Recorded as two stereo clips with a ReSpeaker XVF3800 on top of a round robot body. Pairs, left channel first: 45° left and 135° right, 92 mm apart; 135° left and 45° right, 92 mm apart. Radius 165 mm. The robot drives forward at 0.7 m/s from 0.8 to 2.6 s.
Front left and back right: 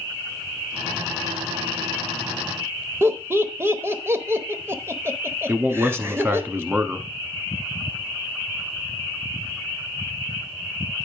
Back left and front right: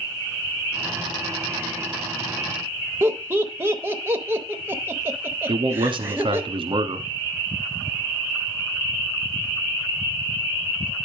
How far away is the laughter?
About 1.1 m.